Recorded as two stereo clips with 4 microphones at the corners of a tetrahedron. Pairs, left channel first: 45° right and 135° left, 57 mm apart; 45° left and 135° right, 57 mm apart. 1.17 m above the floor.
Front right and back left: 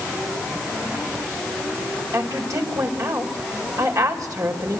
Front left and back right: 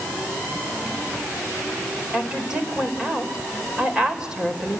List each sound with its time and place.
2.1 s a woman speaking: 150° left, 4 m